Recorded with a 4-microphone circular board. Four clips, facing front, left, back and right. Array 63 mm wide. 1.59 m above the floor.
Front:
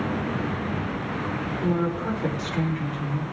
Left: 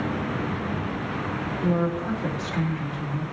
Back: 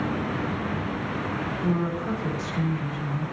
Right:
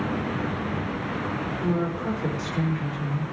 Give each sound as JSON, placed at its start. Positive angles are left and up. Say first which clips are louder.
{"t": 1.6, "sound": "a woman speaking", "louder": "left 2 dB, front 2 dB", "azimuth_deg": -30, "distance_m": 4.5}